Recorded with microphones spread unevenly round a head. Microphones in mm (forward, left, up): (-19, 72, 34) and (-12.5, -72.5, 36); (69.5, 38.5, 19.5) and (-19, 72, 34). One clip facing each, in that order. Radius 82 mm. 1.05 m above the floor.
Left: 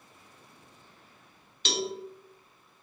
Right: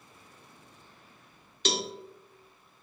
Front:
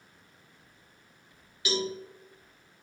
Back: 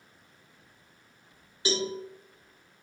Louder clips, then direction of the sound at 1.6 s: Even, back 1 dB; 135° right.